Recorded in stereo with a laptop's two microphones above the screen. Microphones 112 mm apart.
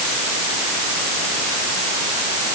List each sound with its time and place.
Only background noise.